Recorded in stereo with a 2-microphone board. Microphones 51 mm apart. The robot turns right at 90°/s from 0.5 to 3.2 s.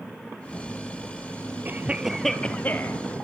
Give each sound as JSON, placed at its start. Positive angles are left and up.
{"t": 1.6, "sound": "a cough", "azimuth_deg": -50, "distance_m": 1.9}